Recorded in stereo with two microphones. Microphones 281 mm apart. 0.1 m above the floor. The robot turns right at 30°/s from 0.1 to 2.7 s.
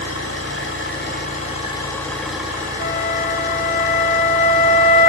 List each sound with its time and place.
0.0 s an engine running: 115° left, 9 m; by 5.1 s 170° right, 9 m
2.8 s a flute: 35° left (ahead or behind), 0.5 m